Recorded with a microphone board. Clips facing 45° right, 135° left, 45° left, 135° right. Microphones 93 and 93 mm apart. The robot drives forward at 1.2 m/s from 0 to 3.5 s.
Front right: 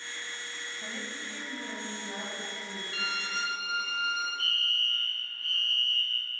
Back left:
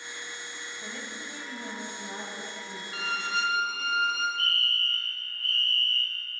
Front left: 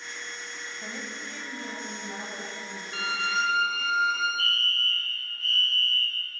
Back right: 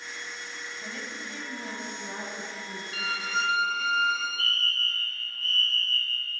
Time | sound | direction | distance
0.8 | a woman speaking | 40° left | 1.0 m
2.9 | a violin | 85° left | 0.8 m
4.4 | a fire alarm | 105° right | 2.5 m